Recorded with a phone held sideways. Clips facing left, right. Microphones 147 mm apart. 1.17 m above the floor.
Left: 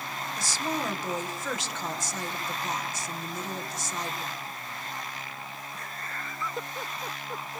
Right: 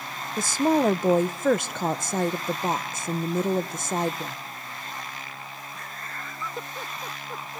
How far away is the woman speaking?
About 0.9 m.